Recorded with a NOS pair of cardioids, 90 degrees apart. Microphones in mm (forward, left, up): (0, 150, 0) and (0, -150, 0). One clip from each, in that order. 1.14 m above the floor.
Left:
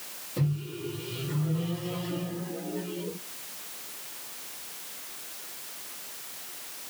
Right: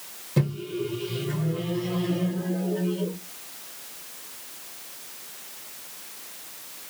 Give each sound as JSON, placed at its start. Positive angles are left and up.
{"t": 0.4, "sound": "a microwave", "azimuth_deg": -70, "distance_m": 1.3}